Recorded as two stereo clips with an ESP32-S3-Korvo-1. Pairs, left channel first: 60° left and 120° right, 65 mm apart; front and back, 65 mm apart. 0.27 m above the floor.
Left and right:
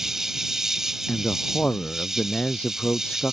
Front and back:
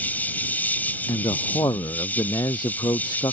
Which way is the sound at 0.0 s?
40° right.